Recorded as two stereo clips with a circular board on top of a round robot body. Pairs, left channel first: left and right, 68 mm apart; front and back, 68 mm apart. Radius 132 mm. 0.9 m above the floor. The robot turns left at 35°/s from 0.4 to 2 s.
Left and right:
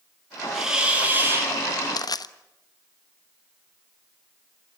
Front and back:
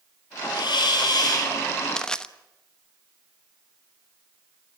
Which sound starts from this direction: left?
Crushing, at 2.0 s.